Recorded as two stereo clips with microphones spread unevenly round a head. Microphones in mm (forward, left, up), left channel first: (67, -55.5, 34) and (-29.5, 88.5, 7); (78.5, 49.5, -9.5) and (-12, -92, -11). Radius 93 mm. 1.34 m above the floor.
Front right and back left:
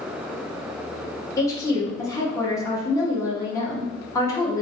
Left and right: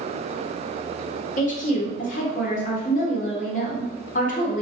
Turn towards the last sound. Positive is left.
turn(degrees=15)